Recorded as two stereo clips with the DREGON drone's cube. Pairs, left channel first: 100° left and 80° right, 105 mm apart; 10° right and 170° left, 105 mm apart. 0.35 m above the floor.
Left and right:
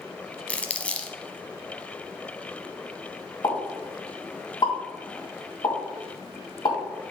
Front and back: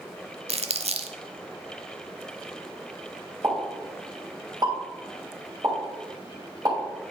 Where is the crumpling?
175° left, 0.7 m.